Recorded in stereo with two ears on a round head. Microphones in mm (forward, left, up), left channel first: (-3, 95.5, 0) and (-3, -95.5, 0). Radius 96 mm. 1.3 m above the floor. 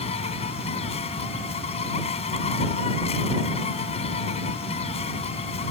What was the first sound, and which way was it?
An insect, 30° left (ahead or behind).